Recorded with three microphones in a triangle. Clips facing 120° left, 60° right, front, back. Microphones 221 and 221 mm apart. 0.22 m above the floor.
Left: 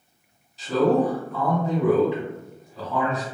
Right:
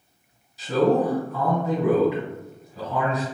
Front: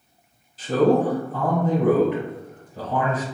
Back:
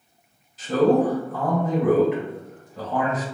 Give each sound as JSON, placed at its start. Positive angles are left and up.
{"t": 0.6, "sound": "a man speaking", "azimuth_deg": 20, "distance_m": 1.4}